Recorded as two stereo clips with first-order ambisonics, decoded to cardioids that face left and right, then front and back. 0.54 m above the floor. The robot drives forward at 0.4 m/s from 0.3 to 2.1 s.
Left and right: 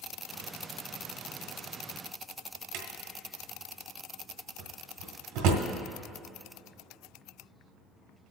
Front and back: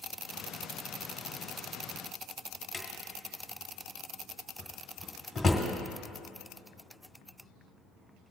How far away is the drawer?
About 1.5 m.